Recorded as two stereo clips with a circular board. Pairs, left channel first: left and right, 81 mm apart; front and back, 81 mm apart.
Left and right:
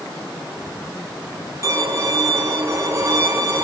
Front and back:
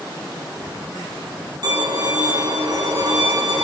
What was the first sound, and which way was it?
A violin, 140° right.